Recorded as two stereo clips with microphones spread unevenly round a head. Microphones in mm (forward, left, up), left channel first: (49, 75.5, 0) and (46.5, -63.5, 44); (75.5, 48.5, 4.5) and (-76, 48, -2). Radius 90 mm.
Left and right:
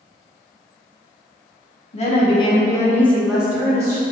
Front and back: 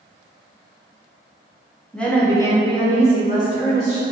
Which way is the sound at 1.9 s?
85° left.